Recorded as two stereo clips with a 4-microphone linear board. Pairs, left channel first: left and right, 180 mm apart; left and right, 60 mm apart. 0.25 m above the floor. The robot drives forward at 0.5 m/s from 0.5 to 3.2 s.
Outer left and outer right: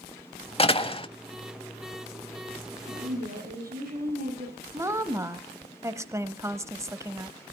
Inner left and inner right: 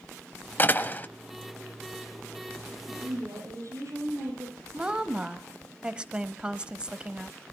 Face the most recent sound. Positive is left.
turn(degrees=-15)  # may be behind; listen again after turning